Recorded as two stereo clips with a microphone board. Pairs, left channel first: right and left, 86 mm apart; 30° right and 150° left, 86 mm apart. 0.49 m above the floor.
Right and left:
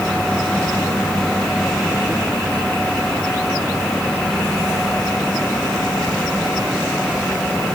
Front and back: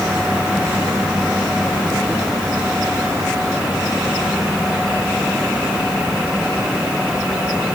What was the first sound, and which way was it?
Only background noise.